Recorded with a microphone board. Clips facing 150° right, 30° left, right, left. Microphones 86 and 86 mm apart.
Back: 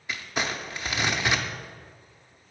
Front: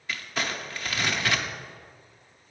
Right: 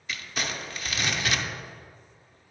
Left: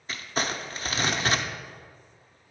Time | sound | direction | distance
0.1 | crumpling | 140° left | 0.6 m